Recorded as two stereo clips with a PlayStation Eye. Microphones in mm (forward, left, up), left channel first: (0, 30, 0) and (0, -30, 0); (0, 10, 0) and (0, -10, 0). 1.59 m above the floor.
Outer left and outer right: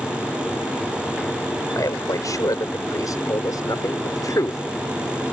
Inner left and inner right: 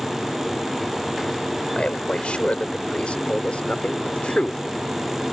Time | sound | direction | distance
1.7 | a man speaking | 70° left (ahead or behind) | ?